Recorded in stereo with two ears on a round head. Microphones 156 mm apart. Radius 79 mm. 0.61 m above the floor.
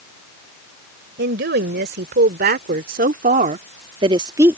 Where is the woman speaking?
70° right (ahead or behind); by 4.6 s 10° right (ahead or behind).